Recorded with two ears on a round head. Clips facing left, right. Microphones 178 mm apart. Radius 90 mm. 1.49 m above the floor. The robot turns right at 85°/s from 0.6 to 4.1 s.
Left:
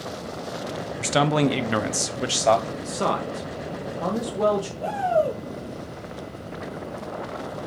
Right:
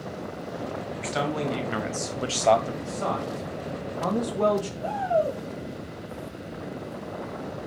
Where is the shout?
80° left, 4 m.